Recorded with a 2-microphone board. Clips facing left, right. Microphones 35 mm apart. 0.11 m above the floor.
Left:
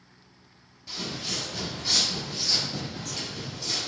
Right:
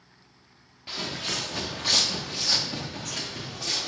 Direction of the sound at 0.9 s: 40° right (ahead or behind).